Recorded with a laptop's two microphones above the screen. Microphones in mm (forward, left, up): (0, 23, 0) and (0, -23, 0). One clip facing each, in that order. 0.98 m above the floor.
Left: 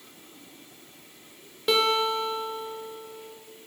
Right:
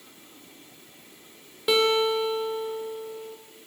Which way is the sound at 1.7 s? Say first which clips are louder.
Right 2 dB; 5° right (ahead or behind).